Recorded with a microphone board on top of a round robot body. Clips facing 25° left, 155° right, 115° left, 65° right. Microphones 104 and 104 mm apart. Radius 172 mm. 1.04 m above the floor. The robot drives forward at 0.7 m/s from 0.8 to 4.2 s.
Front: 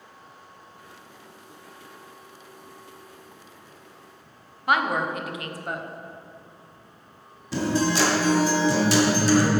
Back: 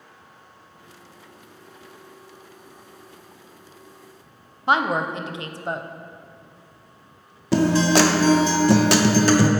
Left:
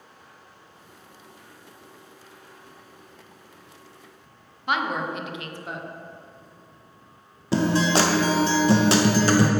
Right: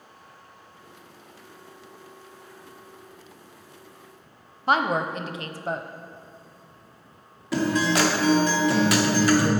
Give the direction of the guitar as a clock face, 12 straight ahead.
6 o'clock.